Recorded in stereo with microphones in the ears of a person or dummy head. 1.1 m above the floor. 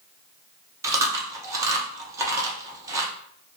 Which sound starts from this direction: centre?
Chewing, at 0.8 s.